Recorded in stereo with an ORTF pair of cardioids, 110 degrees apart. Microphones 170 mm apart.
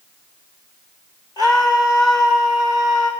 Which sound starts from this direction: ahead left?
A scream, at 1.4 s.